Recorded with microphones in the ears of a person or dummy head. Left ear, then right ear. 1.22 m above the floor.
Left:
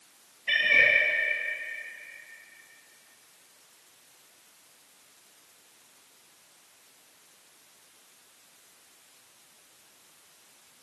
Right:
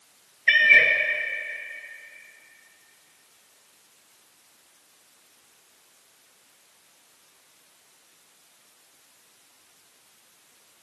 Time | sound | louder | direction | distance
0.5 | a cat meowing | right 5 dB | 60° right (ahead or behind) | 2 m